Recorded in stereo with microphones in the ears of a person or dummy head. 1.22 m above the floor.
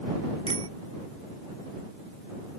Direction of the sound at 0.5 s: 35° right (ahead or behind).